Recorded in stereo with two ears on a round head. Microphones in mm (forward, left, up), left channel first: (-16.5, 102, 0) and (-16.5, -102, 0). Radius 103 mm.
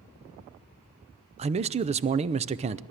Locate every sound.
1.4 s a man speaking: 30° right (ahead or behind), 0.5 m